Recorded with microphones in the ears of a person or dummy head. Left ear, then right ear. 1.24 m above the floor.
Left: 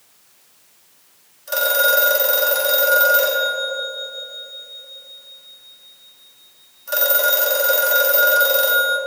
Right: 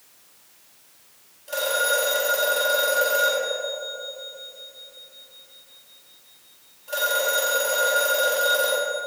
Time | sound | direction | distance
1.5 | a phone ringing | 65° left (ahead or behind) | 1.1 m